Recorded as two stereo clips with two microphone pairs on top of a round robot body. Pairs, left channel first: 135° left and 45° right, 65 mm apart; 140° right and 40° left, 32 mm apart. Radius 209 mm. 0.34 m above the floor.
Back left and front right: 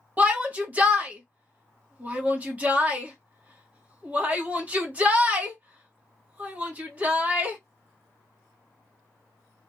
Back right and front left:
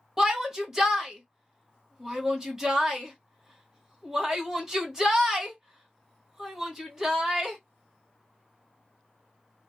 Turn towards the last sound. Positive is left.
turn(degrees=-20)